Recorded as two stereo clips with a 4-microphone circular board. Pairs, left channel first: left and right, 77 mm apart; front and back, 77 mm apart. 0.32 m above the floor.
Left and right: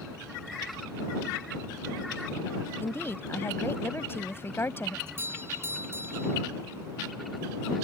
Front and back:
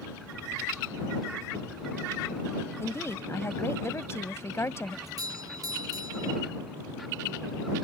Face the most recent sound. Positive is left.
turn(degrees=-145)